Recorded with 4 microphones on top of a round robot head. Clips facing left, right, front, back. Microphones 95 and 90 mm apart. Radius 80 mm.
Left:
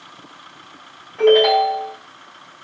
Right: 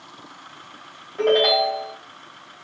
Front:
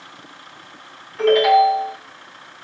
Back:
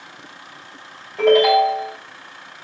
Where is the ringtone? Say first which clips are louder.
Left 5 dB, even; 155° right, 3 m.